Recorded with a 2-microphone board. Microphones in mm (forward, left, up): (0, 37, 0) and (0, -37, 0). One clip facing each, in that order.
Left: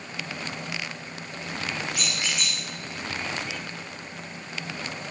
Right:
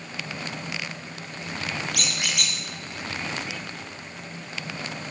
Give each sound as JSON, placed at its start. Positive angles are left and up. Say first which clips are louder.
{"t": 1.9, "sound": "a squeak", "louder": "even", "side_deg": -70, "distance_m": 1.4}